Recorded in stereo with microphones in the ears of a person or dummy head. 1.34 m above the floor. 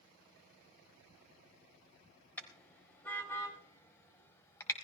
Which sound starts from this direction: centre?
A car horn, at 2.4 s.